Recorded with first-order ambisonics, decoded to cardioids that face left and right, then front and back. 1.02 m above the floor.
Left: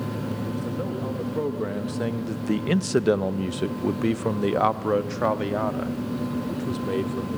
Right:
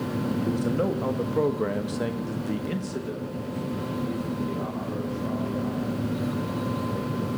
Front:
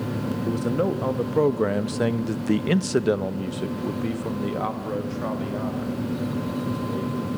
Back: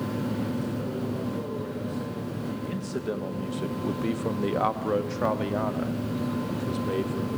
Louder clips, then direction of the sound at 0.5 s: Right 7 dB, front 8 dB; 25° right.